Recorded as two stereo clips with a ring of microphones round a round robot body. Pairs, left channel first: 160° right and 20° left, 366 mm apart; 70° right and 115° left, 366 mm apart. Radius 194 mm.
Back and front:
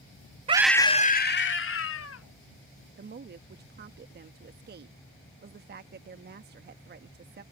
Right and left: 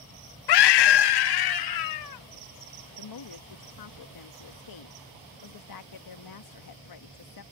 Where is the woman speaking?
40° right.